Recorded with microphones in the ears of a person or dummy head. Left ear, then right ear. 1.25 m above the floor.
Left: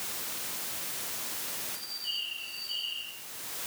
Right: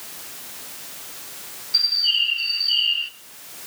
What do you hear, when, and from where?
1.7 s a bird: 60° right (ahead or behind), 0.8 m